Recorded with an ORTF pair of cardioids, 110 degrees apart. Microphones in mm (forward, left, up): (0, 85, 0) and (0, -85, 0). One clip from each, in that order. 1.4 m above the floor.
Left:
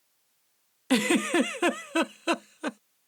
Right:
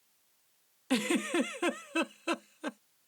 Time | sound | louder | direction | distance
0.9 | a giggle | left 6 dB | 40° left | ?